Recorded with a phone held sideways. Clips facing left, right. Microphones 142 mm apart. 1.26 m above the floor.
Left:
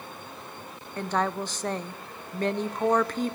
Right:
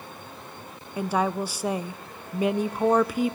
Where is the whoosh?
No whoosh in this recording.